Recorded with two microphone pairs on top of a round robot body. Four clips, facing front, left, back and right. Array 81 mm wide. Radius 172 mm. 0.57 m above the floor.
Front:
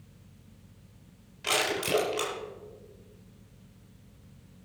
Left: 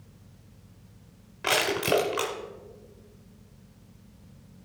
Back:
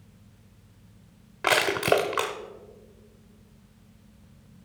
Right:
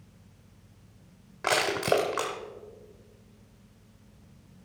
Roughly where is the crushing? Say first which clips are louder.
Even, back 7 dB; behind.